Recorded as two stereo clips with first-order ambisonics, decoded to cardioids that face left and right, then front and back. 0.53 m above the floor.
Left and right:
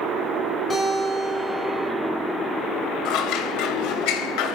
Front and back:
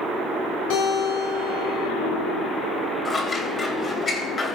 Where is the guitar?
20° left, 8 m.